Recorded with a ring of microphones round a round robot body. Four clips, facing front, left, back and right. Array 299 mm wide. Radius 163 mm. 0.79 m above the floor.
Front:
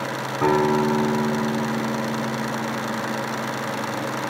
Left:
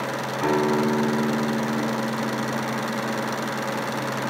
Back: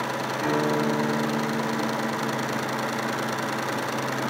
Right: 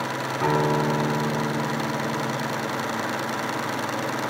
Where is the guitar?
Straight ahead, 4 m.